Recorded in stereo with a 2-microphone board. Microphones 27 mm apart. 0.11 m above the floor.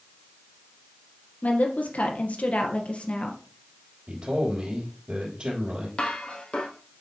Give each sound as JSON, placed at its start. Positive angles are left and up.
{"t": 1.4, "sound": "a woman speaking", "side_deg": 65, "distance_m": 3.0}
{"t": 4.1, "sound": "a man speaking", "side_deg": -45, "distance_m": 3.5}
{"t": 6.0, "sound": "dishes clattering", "side_deg": 40, "distance_m": 2.5}